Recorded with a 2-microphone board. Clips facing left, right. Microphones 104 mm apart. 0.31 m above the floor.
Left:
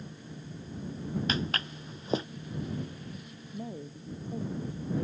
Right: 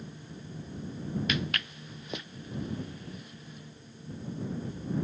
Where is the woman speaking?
80° left.